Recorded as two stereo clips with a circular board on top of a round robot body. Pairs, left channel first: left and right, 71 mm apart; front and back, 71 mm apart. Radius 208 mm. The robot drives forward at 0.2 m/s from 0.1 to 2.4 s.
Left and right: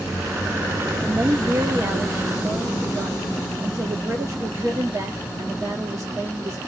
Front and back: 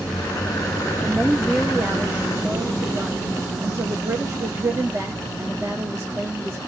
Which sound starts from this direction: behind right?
A woman speaking, at 1.0 s.